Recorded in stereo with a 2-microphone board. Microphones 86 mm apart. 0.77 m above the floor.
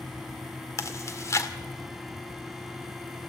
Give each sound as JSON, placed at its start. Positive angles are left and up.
{"t": 0.8, "sound": "chewing", "side_deg": 35, "distance_m": 1.9}